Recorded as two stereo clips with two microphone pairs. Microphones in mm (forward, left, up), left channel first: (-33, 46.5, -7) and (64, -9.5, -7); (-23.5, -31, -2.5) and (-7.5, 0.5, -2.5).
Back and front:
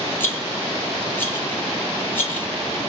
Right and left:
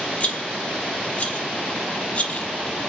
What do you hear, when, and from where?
0.2 s a rattle: 145° right, 0.8 m